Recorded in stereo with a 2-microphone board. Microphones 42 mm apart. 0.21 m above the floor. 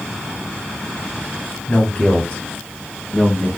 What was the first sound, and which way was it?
A man speaking, 30° left (ahead or behind).